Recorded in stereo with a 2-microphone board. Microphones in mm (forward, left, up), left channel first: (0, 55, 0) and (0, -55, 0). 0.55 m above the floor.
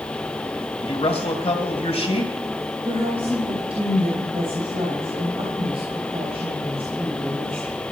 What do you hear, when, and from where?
0.8 s a man speaking: 65° left (ahead or behind), 2.5 m
2.9 s a woman speaking: 65° right (ahead or behind), 3.5 m